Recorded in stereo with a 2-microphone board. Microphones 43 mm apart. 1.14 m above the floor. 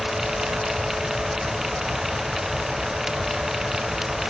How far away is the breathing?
No breathing in this recording.